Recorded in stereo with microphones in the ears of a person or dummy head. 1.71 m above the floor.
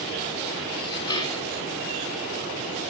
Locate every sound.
0.7 s dishes clattering: 25° left (ahead or behind), 2.5 m